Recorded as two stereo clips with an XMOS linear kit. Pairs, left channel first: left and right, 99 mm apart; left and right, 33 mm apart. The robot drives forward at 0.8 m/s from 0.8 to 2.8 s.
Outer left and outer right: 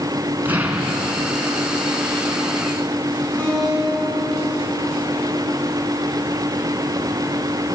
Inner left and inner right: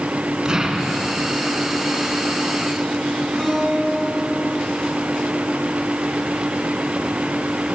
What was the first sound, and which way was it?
An explosion, 20° right (ahead or behind).